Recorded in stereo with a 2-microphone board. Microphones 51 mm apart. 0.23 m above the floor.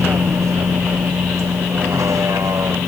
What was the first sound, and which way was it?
A vehicle, 65° right (ahead or behind).